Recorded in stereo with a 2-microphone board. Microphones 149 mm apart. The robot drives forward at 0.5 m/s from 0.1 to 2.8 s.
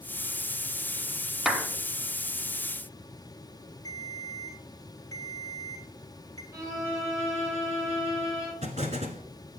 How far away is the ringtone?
About 2 m.